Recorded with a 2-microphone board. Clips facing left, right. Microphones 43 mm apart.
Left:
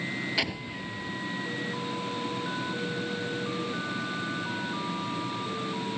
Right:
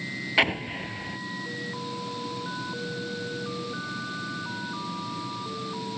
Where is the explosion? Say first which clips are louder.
Right 7 dB; 35° right (ahead or behind).